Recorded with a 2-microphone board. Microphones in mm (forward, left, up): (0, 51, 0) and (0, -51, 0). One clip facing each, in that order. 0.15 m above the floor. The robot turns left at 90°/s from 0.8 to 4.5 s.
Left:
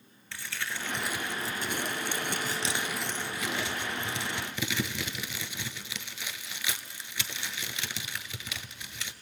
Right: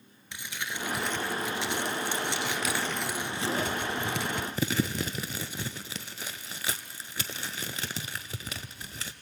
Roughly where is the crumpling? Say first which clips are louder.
Even; centre.